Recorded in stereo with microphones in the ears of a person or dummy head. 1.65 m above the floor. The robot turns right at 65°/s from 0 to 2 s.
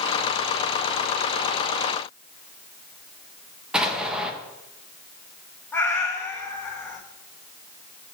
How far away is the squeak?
I don't hear a squeak.